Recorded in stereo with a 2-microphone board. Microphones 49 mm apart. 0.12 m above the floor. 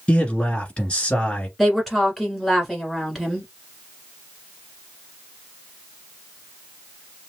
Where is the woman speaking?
Centre (ahead or behind), 1.7 m.